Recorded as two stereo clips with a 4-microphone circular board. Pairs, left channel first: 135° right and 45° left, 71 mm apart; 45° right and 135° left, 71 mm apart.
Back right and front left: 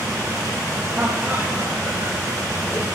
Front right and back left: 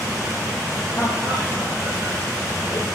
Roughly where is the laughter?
Ahead.